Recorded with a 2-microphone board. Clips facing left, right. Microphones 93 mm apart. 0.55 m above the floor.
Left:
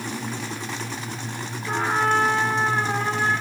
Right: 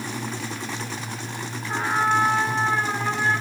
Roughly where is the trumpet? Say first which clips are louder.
Left 1 dB; left.